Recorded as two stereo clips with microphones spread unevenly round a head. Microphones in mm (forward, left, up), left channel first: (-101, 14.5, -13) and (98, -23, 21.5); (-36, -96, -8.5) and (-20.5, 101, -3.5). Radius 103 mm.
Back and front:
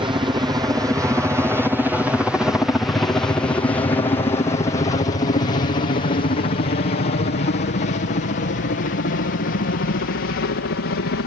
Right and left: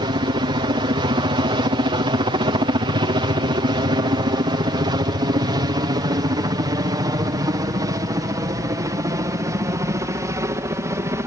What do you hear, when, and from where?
0.0 s a helicopter: 50° left; by 11.3 s 160° left